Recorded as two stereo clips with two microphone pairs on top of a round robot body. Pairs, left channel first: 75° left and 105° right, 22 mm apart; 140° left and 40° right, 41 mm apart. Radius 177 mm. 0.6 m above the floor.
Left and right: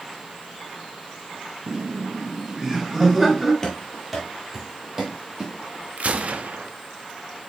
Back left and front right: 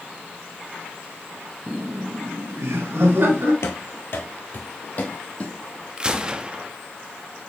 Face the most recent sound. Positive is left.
turn(degrees=-120)